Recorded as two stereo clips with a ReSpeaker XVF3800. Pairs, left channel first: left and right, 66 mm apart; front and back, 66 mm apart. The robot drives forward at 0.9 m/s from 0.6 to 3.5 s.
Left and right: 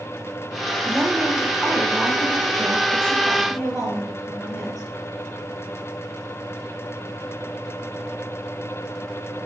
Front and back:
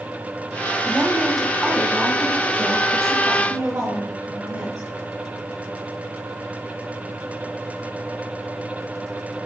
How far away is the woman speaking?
About 1.1 m.